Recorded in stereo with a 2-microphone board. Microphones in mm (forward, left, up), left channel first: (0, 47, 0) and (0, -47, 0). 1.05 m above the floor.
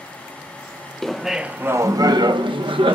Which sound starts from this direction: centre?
Laughter, at 1.0 s.